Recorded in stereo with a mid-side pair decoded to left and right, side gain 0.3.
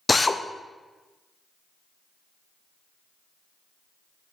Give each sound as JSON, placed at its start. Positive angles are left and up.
{"t": 0.1, "sound": "a drill", "azimuth_deg": 30, "distance_m": 0.6}